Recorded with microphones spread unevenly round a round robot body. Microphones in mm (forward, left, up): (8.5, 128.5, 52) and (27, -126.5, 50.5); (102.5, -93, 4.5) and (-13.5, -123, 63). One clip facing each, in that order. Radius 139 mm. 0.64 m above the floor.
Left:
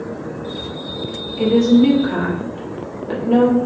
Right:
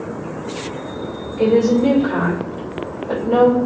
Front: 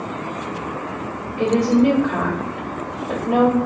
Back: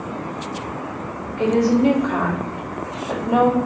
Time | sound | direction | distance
1.4 | a woman speaking | 105° left | 1.2 m